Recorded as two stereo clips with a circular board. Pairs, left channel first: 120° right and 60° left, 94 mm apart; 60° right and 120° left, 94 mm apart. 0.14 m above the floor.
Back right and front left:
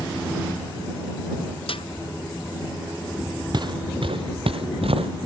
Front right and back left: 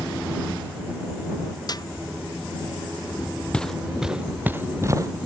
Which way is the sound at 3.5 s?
20° left.